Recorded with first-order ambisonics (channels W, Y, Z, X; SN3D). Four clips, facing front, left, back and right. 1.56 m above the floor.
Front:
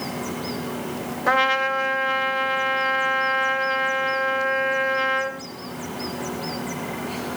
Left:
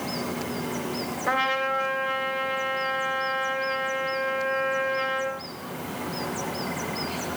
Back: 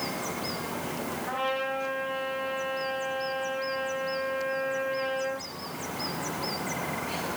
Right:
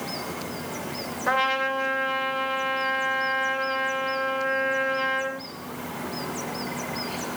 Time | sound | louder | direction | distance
1.3 | a trumpet | right 1 dB, front 12 dB | 15° right | 3 m